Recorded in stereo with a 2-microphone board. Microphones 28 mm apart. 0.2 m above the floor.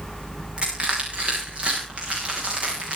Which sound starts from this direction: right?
Crushing, at 0.6 s.